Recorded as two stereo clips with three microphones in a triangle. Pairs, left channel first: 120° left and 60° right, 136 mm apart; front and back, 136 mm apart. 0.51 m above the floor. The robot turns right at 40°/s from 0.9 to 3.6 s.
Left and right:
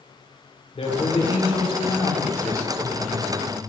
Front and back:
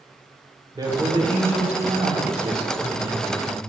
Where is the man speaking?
130° left, 2.0 m; by 3.6 s 125° right, 2.0 m.